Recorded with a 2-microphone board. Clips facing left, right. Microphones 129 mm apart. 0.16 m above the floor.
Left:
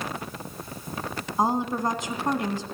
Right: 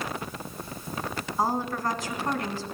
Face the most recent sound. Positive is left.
turn(degrees=20)  # may be behind; listen again after turning